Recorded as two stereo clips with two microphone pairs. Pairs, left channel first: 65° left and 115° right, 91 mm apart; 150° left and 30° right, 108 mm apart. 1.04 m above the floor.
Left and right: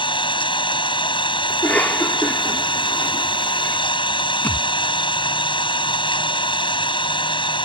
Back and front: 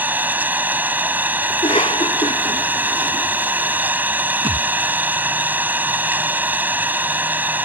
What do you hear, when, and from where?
0.0 s an engine running: 45° left
1.5 s a cough: 140° left
4.4 s a thud: straight ahead